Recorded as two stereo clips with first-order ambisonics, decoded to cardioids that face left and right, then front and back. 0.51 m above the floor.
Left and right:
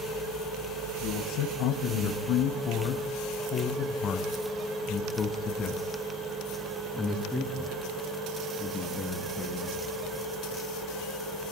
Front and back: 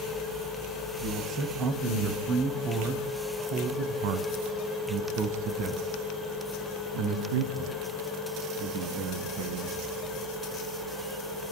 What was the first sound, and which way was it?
A man speaking, 120° left.